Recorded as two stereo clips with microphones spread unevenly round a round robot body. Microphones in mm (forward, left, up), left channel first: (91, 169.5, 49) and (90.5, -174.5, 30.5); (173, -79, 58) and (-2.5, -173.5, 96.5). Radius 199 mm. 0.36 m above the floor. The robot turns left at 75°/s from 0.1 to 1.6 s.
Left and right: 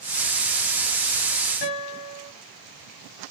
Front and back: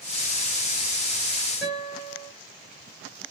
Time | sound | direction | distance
1.6 | a guitar | 110° left | 3.5 m